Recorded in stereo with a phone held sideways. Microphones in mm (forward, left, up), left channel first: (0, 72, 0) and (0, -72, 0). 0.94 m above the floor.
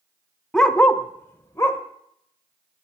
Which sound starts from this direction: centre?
A dog barking, at 0.5 s.